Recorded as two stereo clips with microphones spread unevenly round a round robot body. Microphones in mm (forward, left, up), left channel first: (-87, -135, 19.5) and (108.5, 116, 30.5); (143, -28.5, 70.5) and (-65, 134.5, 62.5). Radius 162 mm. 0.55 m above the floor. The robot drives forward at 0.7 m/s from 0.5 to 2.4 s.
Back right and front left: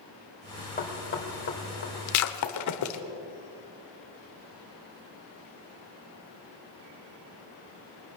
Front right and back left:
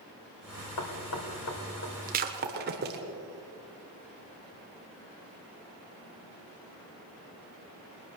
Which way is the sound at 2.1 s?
160° right.